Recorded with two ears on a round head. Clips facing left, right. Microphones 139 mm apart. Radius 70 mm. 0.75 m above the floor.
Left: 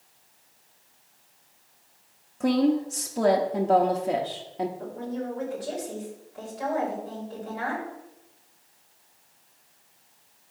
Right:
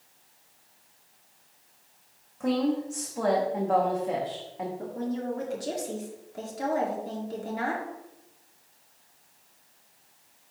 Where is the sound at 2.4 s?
35° left (ahead or behind), 0.7 m.